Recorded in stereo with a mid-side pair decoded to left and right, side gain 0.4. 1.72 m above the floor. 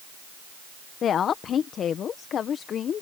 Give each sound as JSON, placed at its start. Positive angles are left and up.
{"t": 1.0, "sound": "a woman speaking", "azimuth_deg": 65}